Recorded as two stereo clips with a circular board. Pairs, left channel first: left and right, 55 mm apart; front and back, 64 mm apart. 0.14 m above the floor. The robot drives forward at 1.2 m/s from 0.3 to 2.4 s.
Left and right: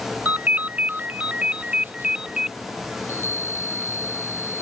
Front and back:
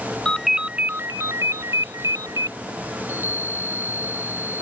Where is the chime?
130° left.